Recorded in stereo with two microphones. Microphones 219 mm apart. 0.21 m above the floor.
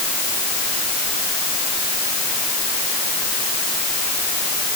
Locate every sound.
Only background noise.